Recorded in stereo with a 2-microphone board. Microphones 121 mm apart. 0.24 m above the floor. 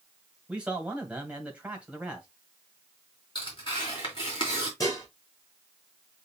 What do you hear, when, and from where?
0.5 s a man speaking: 10° right (ahead or behind), 1.6 m
3.4 s tearing paper: 40° left (ahead or behind), 3 m
4.8 s dishes clattering: 30° left (ahead or behind), 3 m